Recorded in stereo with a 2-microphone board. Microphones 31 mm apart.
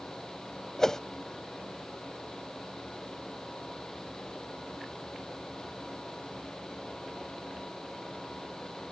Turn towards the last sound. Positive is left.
turn(degrees=15)  # may be behind; listen again after turning